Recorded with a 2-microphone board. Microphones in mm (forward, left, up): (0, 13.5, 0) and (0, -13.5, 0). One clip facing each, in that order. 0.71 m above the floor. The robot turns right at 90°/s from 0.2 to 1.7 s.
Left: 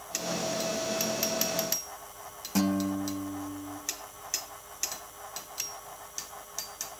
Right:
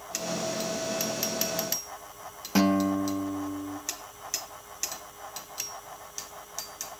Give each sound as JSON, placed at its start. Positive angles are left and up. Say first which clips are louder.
{"t": 2.5, "sound": "a guitar", "louder": "right 4 dB", "side_deg": -30, "distance_m": 0.7}